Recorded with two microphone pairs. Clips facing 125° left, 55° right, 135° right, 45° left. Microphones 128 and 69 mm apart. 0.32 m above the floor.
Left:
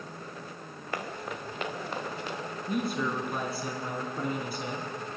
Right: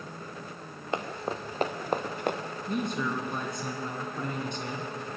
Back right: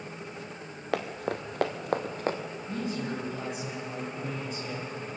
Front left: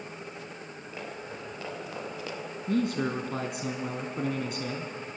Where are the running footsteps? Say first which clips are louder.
Right 4 dB, back right 10 dB; 125° right, 2.5 m; by 2.4 s 90° right, 2.5 m.